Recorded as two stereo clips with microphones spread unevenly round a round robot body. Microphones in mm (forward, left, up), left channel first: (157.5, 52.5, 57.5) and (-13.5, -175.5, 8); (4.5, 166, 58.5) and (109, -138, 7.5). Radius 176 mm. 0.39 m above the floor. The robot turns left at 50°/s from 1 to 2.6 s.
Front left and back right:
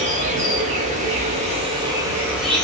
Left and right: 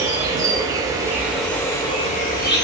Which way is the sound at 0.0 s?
125° right.